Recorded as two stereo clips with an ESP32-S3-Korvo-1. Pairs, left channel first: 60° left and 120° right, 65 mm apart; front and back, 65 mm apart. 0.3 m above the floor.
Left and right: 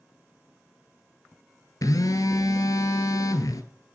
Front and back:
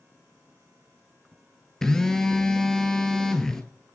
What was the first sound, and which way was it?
A phone buzzing, 80° left.